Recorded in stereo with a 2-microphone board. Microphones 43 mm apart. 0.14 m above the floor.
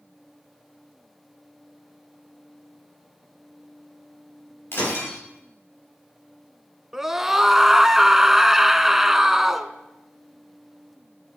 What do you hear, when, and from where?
4.7 s breaking glass: 60° left (ahead or behind), 10 m
6.9 s a scream: 10° right (ahead or behind), 1.2 m